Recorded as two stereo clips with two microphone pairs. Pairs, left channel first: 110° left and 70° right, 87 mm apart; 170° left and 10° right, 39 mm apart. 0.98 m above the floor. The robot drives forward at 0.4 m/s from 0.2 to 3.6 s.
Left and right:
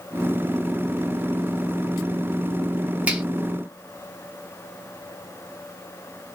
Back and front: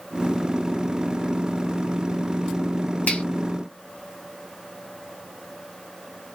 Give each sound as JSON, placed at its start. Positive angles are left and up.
{"t": 3.1, "sound": "a finger snap", "azimuth_deg": -145, "distance_m": 2.0}